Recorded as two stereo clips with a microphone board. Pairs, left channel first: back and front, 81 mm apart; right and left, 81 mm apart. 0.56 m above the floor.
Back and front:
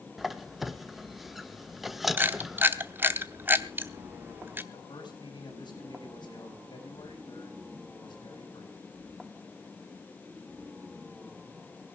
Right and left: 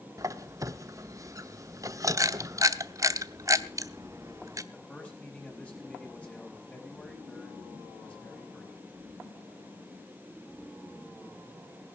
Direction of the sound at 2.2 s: 60° left.